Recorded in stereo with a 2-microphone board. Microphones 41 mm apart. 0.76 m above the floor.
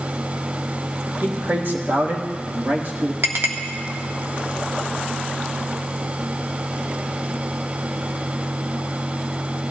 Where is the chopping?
I don't hear chopping.